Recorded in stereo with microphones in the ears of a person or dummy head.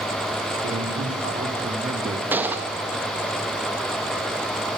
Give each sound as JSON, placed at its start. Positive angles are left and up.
{"t": 0.6, "sound": "a man speaking", "side_deg": -55, "distance_m": 3.5}
{"t": 2.3, "sound": "a gunshot", "side_deg": -15, "distance_m": 1.7}